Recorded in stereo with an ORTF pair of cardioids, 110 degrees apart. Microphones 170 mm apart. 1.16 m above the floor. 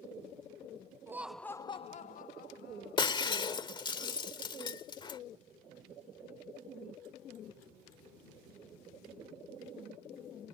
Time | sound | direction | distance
1.1 | laughter | 15° right | ?
3.0 | breaking glass | 30° left | ?